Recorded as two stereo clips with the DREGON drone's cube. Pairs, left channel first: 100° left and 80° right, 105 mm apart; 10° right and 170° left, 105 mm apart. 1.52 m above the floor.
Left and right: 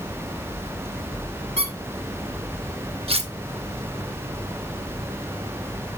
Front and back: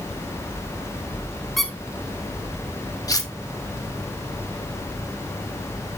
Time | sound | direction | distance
1.6 | a squeak | 100° right | 2.5 m
3.1 | cutlery clinking | 65° right | 1.3 m